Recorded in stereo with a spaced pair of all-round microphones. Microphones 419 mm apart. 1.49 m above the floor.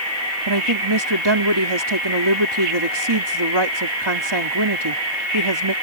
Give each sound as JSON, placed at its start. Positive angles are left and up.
{"t": 0.5, "sound": "a woman speaking", "side_deg": -80}